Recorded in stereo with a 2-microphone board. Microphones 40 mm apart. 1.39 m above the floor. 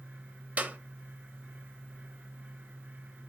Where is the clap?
40° right (ahead or behind), 1.2 m.